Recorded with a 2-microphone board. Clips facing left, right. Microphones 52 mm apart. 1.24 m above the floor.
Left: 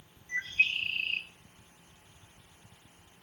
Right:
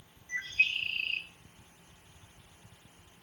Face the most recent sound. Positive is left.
turn(degrees=0)  # may be behind; listen again after turning